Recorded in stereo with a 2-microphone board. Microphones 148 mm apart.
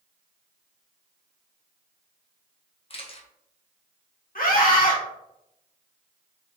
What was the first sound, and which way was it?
A camera shutter, 40° left (ahead or behind).